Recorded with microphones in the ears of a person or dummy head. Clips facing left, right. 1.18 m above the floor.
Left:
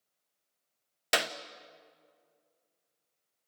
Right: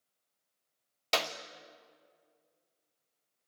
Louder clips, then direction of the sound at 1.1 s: Left 1 dB; 15° left (ahead or behind).